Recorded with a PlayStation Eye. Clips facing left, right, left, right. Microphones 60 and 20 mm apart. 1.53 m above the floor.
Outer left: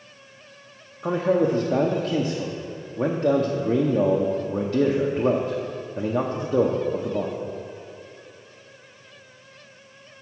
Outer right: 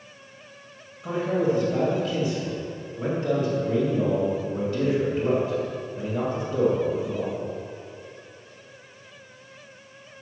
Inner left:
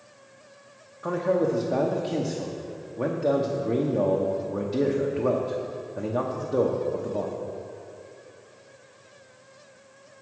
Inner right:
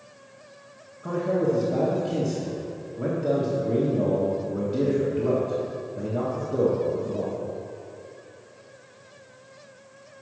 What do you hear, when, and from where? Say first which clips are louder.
1.0 s a man speaking: outer left 3 dB, even; 75° left (ahead or behind), 0.7 m